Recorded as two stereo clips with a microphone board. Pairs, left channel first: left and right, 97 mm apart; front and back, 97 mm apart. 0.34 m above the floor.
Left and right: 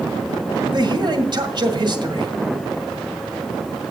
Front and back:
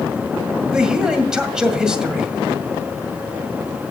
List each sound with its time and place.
0.7 s a man speaking: 100° right, 1.8 m